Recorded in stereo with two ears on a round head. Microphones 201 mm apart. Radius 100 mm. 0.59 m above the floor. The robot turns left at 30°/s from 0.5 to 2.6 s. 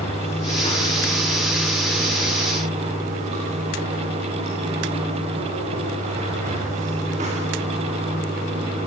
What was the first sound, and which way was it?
Running water, 30° left.